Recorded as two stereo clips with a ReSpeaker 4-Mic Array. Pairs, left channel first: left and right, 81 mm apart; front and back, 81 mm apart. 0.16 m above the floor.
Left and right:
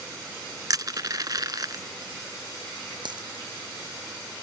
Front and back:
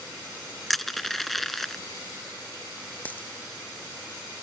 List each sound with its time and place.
0.7 s crushing: 90° right
3.0 s a dropped coin: 70° right